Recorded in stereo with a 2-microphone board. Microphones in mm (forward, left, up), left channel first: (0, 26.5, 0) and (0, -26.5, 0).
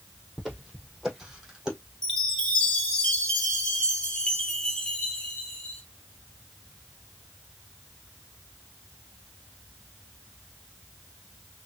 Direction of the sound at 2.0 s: 15° left (ahead or behind).